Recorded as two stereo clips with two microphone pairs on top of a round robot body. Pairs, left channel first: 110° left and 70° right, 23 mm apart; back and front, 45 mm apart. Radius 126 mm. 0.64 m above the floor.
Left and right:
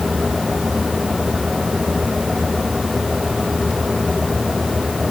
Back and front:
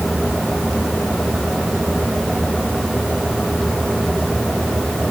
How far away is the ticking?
I don't hear ticking.